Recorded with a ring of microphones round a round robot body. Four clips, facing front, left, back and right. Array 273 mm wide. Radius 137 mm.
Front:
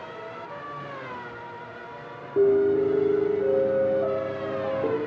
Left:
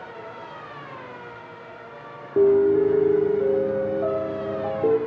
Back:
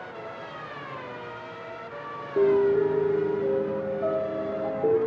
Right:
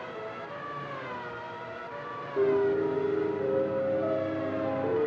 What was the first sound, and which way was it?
A piano, 85° left.